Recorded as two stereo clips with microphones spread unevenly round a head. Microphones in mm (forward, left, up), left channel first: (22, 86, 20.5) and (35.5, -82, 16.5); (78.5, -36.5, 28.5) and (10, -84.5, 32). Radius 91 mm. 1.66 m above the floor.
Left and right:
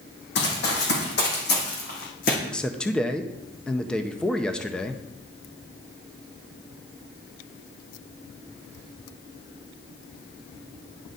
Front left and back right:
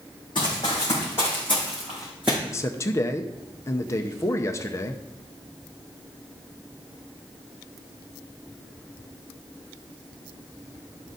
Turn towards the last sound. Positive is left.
turn(degrees=15)